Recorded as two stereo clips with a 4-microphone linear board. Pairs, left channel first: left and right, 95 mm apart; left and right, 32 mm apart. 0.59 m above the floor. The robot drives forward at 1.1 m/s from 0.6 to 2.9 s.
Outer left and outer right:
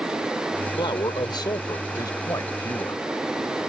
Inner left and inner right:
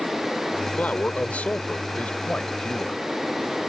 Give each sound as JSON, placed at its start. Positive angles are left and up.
{"t": 0.8, "sound": "a man speaking", "side_deg": 60}